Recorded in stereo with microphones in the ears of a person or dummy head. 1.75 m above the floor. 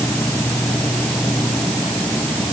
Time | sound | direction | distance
0.0 | an insect | 5° left (ahead or behind) | ?